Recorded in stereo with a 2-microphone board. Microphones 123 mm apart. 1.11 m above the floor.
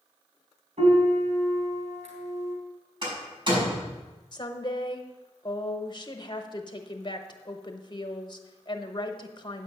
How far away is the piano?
About 2.5 m.